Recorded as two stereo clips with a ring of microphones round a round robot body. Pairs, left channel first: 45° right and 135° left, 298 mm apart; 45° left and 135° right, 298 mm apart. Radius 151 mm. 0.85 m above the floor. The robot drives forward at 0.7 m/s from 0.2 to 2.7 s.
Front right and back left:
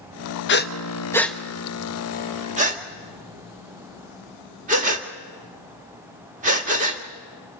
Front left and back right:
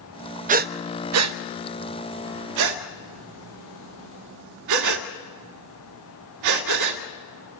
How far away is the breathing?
About 0.8 m.